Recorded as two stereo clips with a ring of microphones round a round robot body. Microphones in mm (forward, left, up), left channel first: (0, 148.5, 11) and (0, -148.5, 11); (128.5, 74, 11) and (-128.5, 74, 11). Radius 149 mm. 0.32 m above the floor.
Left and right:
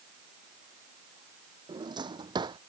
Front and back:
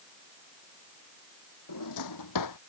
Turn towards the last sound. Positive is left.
turn(degrees=-15)